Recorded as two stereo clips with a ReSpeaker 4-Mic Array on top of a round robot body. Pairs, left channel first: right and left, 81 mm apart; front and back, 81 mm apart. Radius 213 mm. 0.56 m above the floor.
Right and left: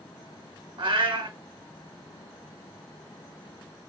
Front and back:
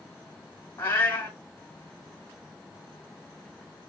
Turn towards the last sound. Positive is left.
turn(degrees=65)